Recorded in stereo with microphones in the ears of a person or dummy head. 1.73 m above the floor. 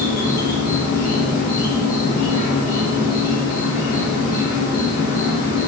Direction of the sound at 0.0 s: 45° left (ahead or behind).